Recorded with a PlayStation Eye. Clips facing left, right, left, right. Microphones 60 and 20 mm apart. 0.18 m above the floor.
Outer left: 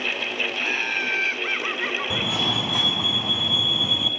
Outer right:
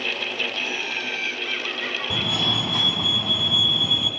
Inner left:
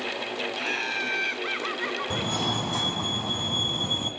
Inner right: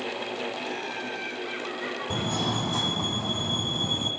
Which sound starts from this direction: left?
Laughter, at 0.6 s.